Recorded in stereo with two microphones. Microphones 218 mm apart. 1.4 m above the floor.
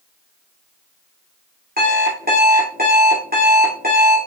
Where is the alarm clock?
45° right (ahead or behind), 3 m.